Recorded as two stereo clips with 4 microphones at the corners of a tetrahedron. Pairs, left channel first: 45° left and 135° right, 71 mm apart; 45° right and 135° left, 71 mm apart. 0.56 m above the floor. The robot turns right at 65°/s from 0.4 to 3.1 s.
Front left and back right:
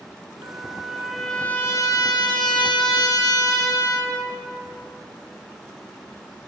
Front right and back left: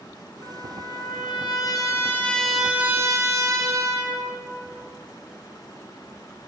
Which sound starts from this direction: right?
A trumpet, at 0.4 s.